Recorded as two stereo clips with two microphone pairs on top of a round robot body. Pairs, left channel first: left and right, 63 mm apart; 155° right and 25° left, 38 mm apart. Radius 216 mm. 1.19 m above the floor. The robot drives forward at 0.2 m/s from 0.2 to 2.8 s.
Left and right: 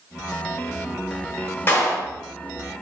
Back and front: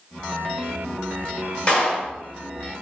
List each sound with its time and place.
1.7 s a clap: 145° left, 1.3 m